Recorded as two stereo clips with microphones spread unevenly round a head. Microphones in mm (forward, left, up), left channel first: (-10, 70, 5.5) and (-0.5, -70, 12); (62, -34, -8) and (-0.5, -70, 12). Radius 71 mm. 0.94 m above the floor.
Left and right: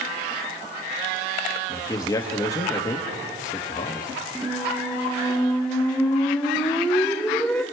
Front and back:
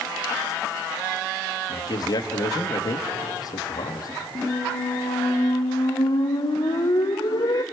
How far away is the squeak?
About 0.7 m.